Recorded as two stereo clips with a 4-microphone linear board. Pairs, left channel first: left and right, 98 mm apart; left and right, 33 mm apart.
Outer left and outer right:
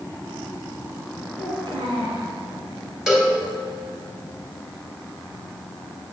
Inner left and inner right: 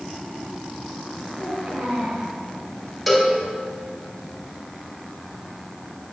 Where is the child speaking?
70° right (ahead or behind), 2 m.